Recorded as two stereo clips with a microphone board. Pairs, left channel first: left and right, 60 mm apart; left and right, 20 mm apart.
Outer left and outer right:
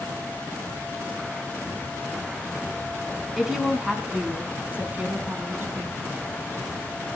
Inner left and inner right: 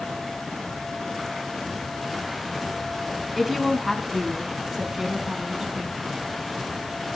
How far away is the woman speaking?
About 3.5 m.